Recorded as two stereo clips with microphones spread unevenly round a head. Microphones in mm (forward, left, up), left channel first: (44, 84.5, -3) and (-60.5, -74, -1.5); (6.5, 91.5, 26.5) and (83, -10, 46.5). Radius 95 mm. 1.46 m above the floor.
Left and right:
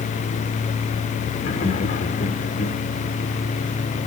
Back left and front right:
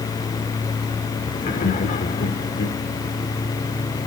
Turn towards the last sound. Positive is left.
turn(degrees=115)